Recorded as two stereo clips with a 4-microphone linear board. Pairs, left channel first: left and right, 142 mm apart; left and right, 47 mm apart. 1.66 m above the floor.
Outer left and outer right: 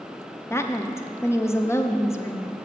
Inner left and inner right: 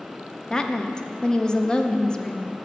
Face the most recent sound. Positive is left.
turn(degrees=20)  # may be behind; listen again after turning